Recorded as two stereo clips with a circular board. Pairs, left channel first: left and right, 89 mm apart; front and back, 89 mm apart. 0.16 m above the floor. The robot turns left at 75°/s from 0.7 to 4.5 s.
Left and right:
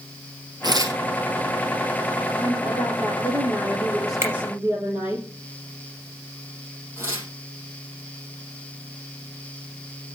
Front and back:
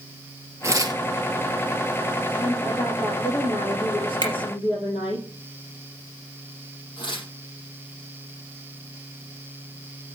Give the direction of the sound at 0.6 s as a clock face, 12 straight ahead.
4 o'clock.